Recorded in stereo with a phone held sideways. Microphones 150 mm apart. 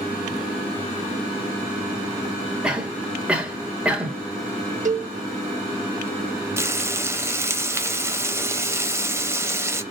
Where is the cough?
5° right (ahead or behind), 1.1 m.